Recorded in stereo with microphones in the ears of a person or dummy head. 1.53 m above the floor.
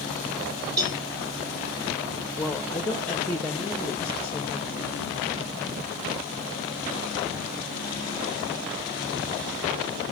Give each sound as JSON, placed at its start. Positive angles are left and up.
{"t": 0.8, "sound": "a cowbell", "side_deg": -20, "distance_m": 0.9}
{"t": 2.4, "sound": "a woman speaking", "side_deg": 10, "distance_m": 0.9}